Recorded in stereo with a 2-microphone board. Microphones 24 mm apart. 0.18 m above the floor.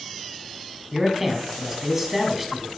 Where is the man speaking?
15° right (ahead or behind), 1.2 m.